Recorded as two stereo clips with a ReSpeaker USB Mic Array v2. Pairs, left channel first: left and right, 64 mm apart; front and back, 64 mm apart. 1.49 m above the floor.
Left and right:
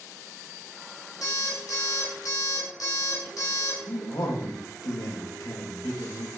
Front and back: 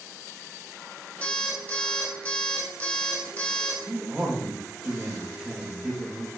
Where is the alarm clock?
70° left, 4 m.